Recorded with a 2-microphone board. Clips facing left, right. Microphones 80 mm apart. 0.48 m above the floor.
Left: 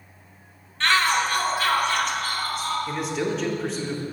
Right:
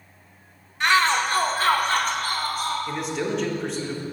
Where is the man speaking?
Centre (ahead or behind), 0.7 m.